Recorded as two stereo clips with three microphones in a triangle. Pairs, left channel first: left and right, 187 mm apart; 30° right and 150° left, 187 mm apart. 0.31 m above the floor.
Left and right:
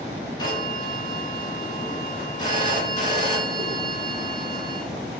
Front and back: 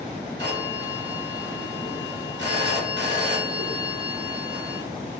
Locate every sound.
0.4 s a phone ringing: 155° left, 1.8 m